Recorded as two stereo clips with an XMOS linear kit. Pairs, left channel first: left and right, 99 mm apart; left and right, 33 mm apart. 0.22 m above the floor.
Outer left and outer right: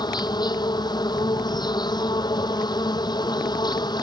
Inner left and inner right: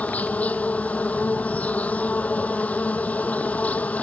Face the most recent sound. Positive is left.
turn(degrees=45)  # may be behind; listen again after turning